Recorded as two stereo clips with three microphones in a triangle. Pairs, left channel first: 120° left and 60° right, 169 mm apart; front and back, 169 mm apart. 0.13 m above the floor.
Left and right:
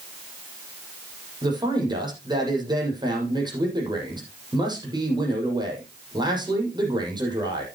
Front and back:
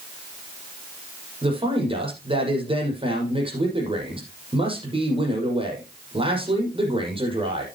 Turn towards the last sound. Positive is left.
turn(degrees=-125)